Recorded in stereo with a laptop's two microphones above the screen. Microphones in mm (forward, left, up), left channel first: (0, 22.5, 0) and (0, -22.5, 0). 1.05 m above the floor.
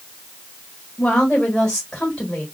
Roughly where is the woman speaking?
Left.